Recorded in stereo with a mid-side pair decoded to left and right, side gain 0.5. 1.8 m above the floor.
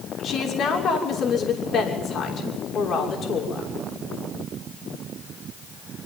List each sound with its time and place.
0.2 s a woman speaking: 55° left, 6.5 m